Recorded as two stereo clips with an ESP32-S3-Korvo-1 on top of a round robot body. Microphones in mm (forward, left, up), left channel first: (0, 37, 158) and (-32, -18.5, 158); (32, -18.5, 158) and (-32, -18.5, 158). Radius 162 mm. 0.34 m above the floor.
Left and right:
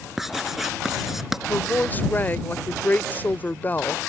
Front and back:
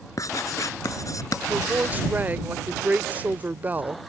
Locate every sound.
0.2 s writing: 35° right
1.5 s a woman speaking: 120° left